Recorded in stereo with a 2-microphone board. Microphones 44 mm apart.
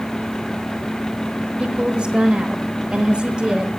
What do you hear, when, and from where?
1.6 s a woman speaking: 25° right (ahead or behind), 1.1 m